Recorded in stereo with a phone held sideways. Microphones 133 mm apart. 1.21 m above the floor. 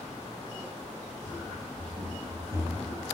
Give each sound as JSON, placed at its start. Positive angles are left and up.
{"t": 1.2, "sound": "running footsteps", "side_deg": -55, "distance_m": 2.0}